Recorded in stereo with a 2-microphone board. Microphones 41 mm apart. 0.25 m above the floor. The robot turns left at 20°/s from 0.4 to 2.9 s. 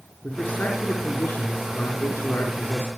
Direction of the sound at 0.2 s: 145° left.